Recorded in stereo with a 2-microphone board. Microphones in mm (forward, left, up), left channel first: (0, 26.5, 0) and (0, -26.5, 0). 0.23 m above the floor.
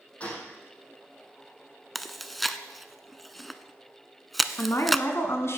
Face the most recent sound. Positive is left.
turn(degrees=55)  # may be behind; listen again after turning